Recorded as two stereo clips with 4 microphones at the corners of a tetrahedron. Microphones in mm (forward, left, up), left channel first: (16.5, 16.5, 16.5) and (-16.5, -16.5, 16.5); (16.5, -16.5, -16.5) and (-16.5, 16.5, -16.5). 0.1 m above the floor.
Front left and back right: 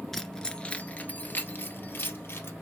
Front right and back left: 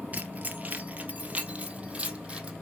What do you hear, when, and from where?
0.1 s keys jangling: 125° left, 1.2 m; by 2.5 s 70° left, 2.5 m